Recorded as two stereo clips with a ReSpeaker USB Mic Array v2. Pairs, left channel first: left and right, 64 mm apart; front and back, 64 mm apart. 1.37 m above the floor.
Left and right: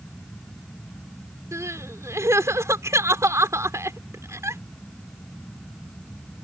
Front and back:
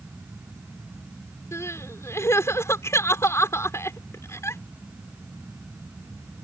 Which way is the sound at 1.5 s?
50° right.